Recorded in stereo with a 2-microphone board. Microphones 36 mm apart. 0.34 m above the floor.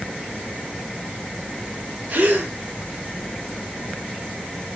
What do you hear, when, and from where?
2.1 s a gasp: 45° right (ahead or behind), 4 m